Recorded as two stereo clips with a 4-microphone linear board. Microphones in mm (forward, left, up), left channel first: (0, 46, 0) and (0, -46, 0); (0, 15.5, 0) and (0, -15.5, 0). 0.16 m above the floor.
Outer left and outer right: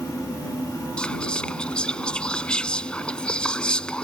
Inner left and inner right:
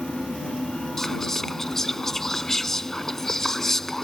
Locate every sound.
1.0 s whispering: 10° left (ahead or behind)